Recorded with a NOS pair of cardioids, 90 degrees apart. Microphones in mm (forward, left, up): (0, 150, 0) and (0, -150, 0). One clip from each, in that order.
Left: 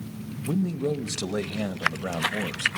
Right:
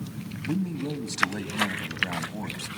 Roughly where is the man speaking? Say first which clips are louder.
Left 4 dB; ahead left.